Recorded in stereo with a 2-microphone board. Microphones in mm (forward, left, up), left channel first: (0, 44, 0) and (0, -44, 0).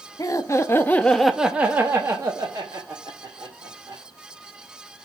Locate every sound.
0.2 s laughter: 45° left (ahead or behind), 0.7 m; by 4.0 s 50° right (ahead or behind), 1.7 m